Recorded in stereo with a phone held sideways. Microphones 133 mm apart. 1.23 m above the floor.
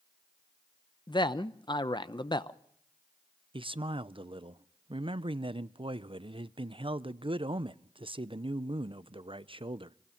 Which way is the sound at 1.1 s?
35° left (ahead or behind).